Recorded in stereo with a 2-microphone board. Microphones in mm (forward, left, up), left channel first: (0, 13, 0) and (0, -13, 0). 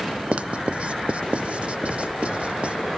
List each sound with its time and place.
0.3 s writing: 55° right (ahead or behind), 0.6 m